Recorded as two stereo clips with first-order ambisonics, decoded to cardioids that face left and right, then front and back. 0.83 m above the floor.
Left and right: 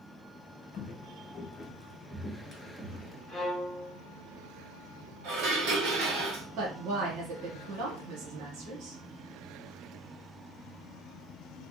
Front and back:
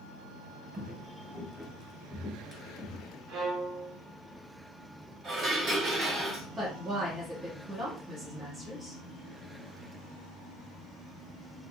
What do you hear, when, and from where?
0.7 s footsteps: 125° left, 1.1 m; by 3.2 s 45° right, 1.0 m
3.3 s a violin: 165° left, 1.2 m
5.2 s dishes clattering: 115° right, 1.8 m
6.6 s a woman speaking: 105° right, 1.1 m